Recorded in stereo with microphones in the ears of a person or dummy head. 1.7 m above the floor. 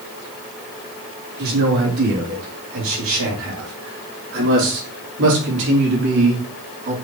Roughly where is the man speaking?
Right.